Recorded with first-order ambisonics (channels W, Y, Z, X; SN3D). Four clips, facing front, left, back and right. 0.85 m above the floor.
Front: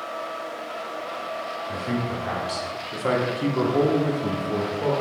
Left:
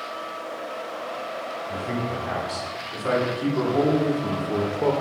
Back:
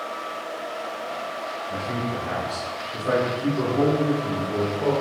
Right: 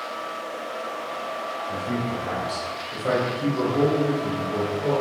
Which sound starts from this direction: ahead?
A man speaking, at 1.7 s.